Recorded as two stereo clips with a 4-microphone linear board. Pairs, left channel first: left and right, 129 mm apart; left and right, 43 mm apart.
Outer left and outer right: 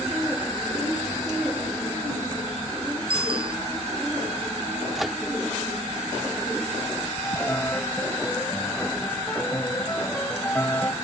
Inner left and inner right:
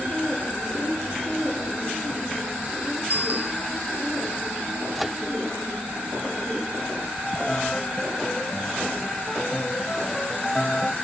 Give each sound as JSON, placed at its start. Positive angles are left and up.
{"t": 3.1, "sound": "a bicycle bell", "side_deg": -40}
{"t": 5.0, "sound": "a microwave", "side_deg": 0}
{"t": 7.2, "sound": "a piano", "side_deg": 20}